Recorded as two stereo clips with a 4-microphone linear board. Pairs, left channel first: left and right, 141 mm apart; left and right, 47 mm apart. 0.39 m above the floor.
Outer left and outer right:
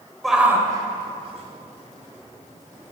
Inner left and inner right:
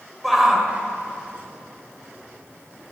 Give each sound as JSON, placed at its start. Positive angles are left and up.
{"t": 0.2, "sound": "a shout", "side_deg": 0, "distance_m": 1.3}